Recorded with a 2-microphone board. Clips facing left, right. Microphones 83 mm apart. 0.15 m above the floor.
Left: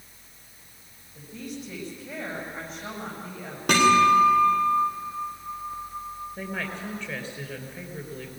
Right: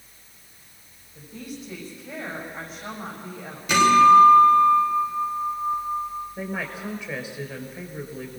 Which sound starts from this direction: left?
A guitar, at 3.7 s.